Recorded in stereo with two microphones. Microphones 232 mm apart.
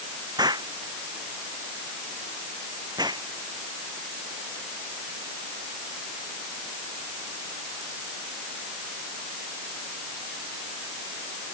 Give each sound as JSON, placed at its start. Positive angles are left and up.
{"t": 0.4, "sound": "an explosion", "side_deg": -15}